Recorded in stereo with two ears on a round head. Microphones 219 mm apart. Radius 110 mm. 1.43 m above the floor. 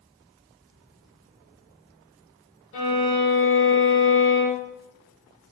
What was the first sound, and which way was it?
A violin, 55° left (ahead or behind).